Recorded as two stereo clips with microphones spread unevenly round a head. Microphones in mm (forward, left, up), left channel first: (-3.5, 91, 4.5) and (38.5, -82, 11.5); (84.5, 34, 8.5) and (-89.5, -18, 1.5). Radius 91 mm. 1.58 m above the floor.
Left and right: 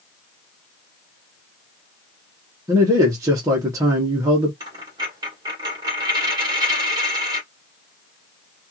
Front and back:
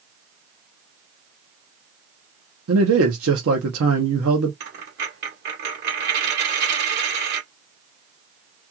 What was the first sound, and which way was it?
A man speaking, 150° right.